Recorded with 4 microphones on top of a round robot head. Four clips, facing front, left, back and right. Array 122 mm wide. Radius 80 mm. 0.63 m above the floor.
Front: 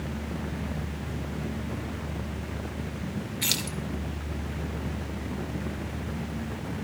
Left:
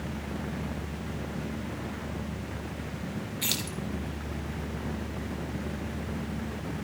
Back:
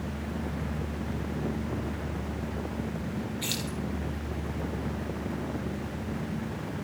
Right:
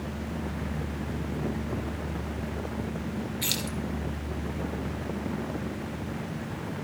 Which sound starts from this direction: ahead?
Keys jangling, at 3.4 s.